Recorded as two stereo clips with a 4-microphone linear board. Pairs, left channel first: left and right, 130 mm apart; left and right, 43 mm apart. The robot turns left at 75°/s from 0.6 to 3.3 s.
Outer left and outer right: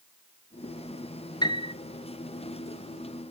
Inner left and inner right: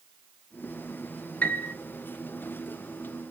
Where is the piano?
35° left (ahead or behind), 0.6 m; by 1.7 s 55° left (ahead or behind), 0.6 m.